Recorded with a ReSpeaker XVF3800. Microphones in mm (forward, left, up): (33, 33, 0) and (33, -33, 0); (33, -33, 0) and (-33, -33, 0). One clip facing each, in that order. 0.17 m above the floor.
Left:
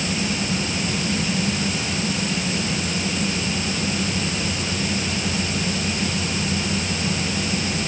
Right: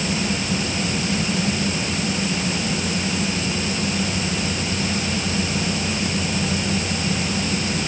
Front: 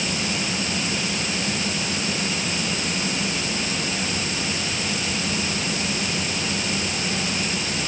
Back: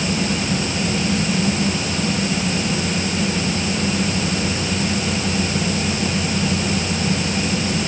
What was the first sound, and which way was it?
Only background noise.